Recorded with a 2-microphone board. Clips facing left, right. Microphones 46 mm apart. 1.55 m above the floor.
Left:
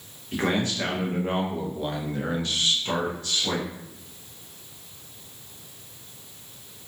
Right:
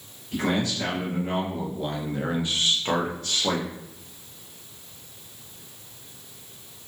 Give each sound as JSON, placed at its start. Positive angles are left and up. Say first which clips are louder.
{"t": 0.3, "sound": "a man speaking", "louder": "even", "side_deg": 45, "distance_m": 1.2}